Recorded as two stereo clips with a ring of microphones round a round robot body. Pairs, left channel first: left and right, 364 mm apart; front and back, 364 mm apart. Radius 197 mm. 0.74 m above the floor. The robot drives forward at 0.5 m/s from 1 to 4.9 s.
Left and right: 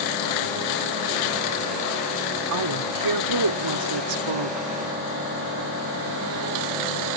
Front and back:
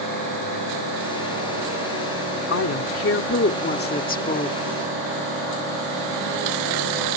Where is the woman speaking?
50° right; by 4.7 s 75° right.